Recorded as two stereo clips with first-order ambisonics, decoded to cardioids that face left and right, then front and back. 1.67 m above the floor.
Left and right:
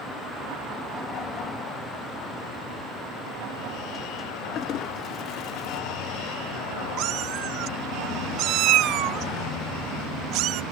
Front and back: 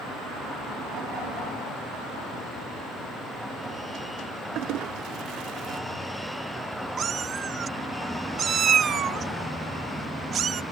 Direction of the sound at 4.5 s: 145° left.